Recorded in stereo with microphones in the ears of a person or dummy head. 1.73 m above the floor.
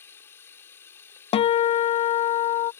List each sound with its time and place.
0.0 s running water: 10° left (ahead or behind)
1.3 s a guitar: 30° left (ahead or behind)